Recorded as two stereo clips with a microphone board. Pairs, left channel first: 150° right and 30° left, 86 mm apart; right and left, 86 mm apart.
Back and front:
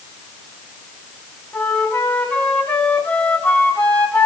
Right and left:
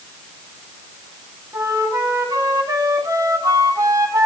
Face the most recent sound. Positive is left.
turn(degrees=140)